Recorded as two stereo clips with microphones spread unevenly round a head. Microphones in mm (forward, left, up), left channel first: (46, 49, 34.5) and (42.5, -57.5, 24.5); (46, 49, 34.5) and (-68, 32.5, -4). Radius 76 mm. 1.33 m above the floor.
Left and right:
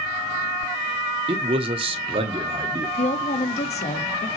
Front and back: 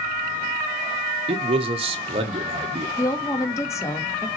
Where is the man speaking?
135° right, 1.2 m.